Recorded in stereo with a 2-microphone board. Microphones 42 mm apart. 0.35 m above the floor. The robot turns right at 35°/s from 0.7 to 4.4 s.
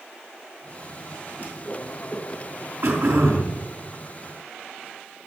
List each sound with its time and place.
1.4 s a whoosh: 40° left (ahead or behind), 4.5 m; by 2.7 s 5° right (ahead or behind), 4.5 m
2.8 s throat clearing: 70° right (ahead or behind), 4 m; by 3.6 s 65° right (ahead or behind), 4 m